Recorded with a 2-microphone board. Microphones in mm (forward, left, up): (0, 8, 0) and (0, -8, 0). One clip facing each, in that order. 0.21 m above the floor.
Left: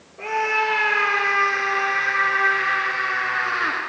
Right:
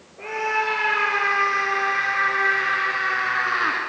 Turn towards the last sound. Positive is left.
turn(degrees=-10)  # may be behind; listen again after turning